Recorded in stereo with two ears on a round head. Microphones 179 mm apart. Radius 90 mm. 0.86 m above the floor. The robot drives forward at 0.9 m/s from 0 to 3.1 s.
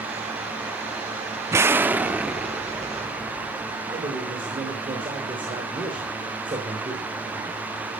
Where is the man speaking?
25° right (ahead or behind), 3 m.